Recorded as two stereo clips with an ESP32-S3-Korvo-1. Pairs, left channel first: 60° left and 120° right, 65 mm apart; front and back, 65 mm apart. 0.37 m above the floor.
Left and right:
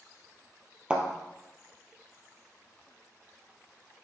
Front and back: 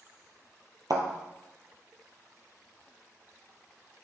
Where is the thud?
170° left, 1.8 m.